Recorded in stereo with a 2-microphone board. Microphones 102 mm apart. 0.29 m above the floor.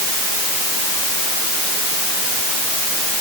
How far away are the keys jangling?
No keys jangling in this recording.